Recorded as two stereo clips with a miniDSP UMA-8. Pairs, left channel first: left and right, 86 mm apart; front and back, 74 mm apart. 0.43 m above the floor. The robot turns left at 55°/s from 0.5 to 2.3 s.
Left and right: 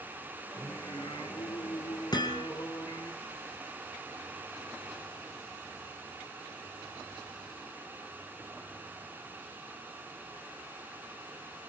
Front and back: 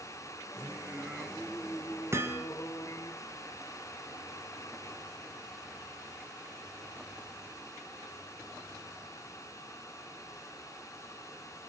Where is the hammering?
130° left, 3 m; by 2.5 s 120° left, 3 m.